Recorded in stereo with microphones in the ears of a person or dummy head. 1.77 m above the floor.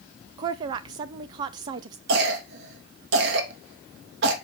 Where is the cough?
65° right (ahead or behind), 3 m.